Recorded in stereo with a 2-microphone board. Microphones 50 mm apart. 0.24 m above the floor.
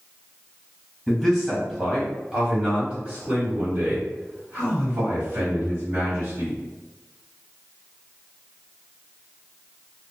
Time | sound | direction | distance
1.1 | a man speaking | centre (ahead or behind) | 1.6 m